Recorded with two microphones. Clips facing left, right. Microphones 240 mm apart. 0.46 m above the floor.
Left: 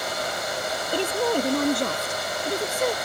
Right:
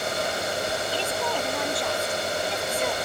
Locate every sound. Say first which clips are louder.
0.9 s a woman speaking: left 5 dB; 45° left (ahead or behind)